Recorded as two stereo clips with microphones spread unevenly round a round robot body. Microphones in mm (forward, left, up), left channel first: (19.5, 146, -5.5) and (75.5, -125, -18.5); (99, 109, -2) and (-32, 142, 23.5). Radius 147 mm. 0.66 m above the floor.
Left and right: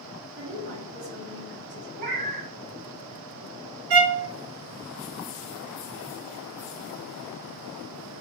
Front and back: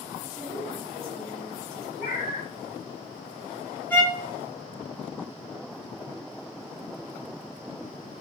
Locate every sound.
0.4 s a woman speaking: 110° right, 1.2 m
2.0 s a cat meowing: 15° right, 1.5 m
3.9 s a violin: 100° right, 0.5 m